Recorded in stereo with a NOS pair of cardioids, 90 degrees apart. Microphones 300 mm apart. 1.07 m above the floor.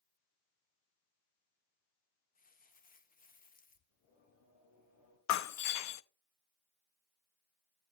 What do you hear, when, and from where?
2.4 s crumpling: 30° left, 1.4 m
3.9 s singing: 70° left, 5.5 m
5.3 s breaking glass: 70° left, 0.8 m